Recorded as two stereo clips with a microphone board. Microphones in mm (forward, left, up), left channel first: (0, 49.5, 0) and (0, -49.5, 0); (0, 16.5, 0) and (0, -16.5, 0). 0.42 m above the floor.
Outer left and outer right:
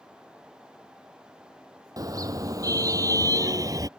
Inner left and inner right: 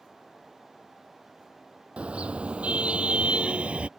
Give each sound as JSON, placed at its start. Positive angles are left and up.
{"t": 2.0, "sound": "a car horn", "side_deg": -35}